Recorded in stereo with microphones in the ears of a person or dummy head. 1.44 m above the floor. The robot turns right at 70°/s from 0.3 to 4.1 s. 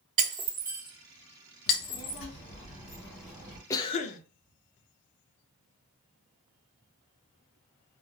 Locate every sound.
0.2 s breaking glass: 30° right (ahead or behind), 1.1 m; by 2.2 s 60° left (ahead or behind), 1.1 m
1.7 s a child speaking: 75° left, 1.4 m; by 3.6 s 150° right, 1.4 m
3.7 s a cough: 20° left (ahead or behind), 0.5 m; by 4.2 s 45° left (ahead or behind), 0.5 m